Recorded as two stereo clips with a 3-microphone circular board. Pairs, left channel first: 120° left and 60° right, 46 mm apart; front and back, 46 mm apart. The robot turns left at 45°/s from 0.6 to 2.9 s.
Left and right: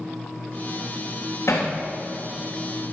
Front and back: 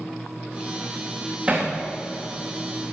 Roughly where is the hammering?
Behind left.